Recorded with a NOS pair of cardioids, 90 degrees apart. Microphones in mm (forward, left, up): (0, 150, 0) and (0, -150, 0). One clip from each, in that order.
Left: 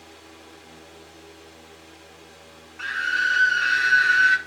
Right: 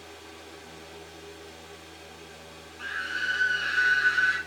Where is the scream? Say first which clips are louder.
Left 8 dB; 40° left, 0.7 m.